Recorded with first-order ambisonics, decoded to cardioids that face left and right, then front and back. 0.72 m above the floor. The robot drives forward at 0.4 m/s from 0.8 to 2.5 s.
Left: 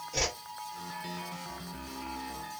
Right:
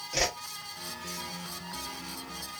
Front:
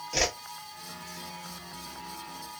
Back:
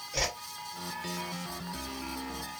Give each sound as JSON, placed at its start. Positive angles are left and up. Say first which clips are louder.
{"t": 0.1, "sound": "a whoosh", "louder": "right 3 dB, front 4 dB", "azimuth_deg": -30, "distance_m": 1.0}